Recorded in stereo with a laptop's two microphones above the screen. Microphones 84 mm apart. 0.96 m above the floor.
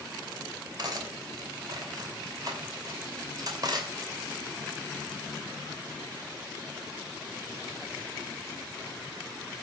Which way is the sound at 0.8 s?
50° right (ahead or behind).